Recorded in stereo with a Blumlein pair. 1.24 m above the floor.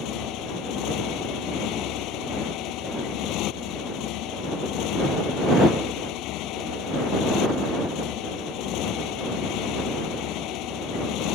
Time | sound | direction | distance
0.0 | a motorcycle | 40° left | ?